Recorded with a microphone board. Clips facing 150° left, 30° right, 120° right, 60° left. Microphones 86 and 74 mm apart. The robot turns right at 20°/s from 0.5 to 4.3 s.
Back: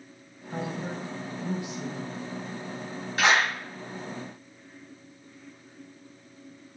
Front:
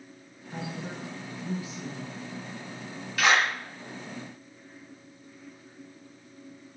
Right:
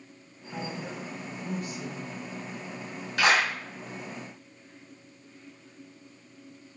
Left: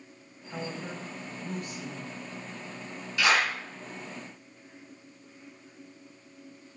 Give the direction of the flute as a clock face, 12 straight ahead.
No flute in this recording.